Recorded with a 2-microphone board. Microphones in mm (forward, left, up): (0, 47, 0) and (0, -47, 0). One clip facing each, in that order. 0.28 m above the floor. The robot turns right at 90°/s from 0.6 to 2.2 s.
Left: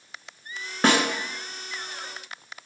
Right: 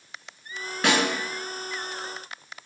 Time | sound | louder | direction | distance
0.8 | a snare drum | left 2 dB | 40° left (ahead or behind) | 0.7 m